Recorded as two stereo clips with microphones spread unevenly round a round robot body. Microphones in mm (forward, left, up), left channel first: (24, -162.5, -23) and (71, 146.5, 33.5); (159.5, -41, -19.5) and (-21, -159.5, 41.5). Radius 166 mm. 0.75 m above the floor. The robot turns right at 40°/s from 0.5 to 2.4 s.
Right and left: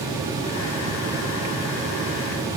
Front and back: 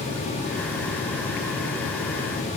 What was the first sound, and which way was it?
Only background noise.